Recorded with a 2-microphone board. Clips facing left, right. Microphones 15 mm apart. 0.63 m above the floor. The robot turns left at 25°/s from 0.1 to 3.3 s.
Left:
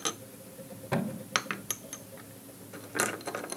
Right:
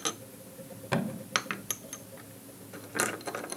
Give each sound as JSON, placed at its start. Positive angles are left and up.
{"t": 0.9, "sound": "a thud", "side_deg": -35, "distance_m": 1.0}